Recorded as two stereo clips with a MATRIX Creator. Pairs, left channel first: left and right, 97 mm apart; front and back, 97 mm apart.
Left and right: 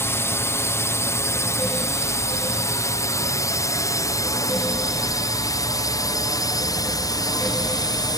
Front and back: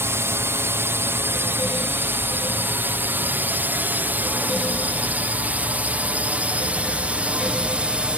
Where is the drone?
135° left; by 8.2 s 105° left.